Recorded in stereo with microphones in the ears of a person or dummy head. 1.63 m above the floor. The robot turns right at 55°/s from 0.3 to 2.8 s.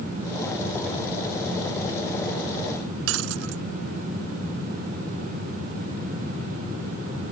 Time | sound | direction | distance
3.1 | breaking glass | 80° right | ?